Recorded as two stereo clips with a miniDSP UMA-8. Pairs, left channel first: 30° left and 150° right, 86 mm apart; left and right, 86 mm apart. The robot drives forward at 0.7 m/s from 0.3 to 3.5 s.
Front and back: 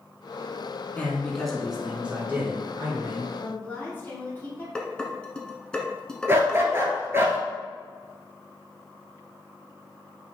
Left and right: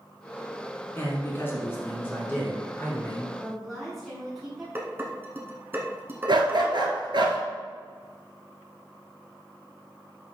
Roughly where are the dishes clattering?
Ahead right.